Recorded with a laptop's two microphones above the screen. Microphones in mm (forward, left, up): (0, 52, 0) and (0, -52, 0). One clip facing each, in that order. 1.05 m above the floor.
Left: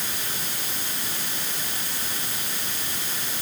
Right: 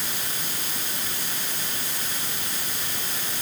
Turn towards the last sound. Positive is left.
No sound to turn to.